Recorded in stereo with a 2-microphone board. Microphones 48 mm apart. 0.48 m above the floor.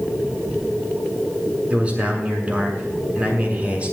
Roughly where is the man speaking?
Right.